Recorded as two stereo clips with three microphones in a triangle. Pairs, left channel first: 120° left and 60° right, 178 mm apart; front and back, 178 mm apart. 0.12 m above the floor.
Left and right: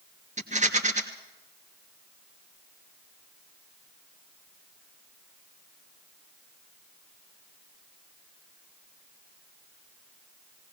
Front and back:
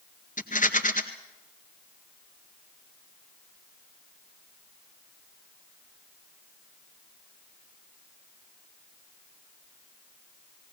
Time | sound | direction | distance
0.4 | a rattle | 25° right | 1.8 m